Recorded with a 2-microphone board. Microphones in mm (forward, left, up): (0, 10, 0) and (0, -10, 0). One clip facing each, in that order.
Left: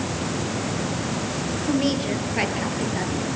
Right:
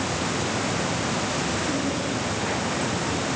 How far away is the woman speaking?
About 7 m.